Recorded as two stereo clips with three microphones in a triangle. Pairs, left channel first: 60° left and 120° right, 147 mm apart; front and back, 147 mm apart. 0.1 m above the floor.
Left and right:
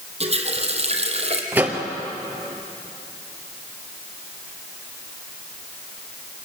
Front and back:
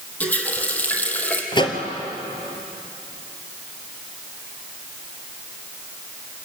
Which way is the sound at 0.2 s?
80° right.